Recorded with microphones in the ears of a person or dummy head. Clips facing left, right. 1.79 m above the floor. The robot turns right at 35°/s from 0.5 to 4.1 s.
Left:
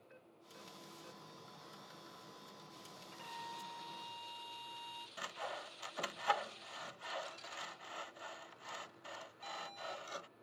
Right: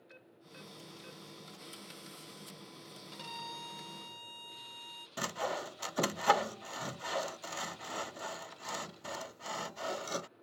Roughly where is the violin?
Right.